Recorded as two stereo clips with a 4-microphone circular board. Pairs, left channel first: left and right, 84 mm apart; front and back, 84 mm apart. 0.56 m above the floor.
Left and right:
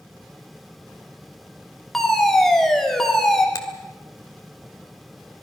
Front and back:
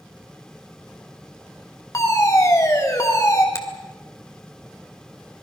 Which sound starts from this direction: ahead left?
A finger snap, at 3.5 s.